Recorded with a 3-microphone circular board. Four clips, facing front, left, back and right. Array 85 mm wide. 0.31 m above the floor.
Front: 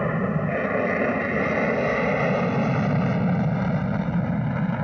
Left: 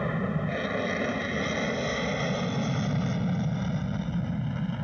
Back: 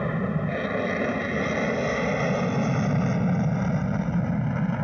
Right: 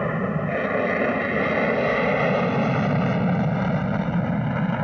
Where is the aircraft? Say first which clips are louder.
Right 5 dB, front 3 dB; 50° right; by 4.8 s 80° right.